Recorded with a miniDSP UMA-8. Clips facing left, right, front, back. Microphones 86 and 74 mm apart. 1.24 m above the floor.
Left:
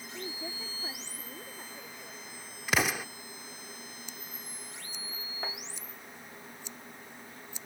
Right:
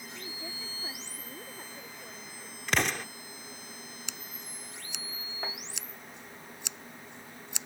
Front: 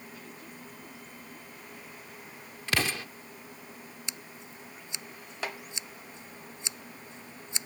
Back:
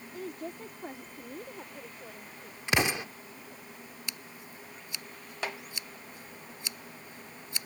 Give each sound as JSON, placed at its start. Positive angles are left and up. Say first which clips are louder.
{"t": 0.1, "sound": "a woman speaking", "louder": "left 5 dB, back 7 dB", "azimuth_deg": 150}
{"t": 2.7, "sound": "an explosion", "louder": "even, back 2 dB", "azimuth_deg": 165}
{"t": 4.1, "sound": "scissors", "louder": "right 1 dB, even", "azimuth_deg": -70}